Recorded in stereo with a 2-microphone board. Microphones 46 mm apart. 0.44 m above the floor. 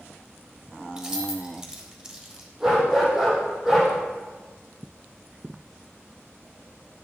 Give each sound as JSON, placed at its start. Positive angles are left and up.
{"t": 1.0, "sound": "keys jangling", "side_deg": -15, "distance_m": 1.5}
{"t": 2.6, "sound": "a dog barking", "side_deg": -10, "distance_m": 5.0}